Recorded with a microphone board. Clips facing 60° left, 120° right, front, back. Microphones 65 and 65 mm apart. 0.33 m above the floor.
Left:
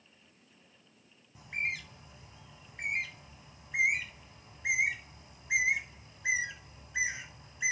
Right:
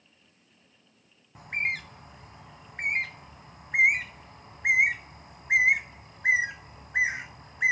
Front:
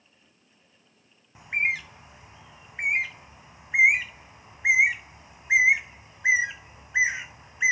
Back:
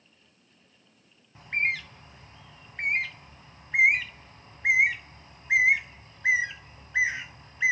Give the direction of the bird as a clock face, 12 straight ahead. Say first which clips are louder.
Right 5 dB, front 1 dB; 3 o'clock.